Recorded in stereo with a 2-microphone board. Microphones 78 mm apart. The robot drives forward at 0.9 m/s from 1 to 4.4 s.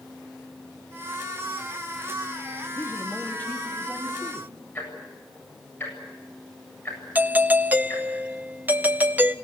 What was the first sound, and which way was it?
A man speaking, 25° left (ahead or behind).